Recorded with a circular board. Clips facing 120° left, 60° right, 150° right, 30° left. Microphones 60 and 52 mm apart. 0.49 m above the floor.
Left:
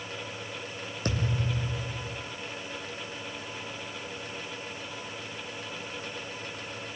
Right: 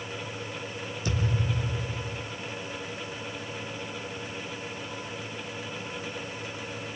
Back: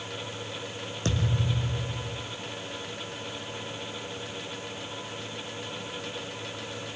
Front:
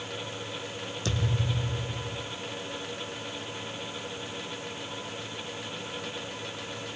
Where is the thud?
160° left, 3 m.